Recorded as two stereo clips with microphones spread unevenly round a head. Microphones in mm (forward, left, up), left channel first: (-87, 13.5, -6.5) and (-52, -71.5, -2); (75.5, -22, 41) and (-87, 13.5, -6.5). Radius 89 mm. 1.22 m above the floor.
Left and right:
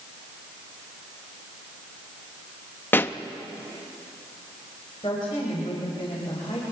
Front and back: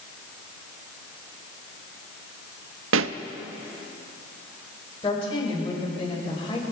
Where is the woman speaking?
50° left, 5.5 m.